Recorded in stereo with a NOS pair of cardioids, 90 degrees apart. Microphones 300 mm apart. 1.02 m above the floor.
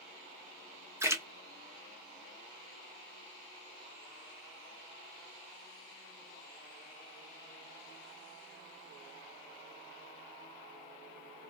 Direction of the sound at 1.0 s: 10° right.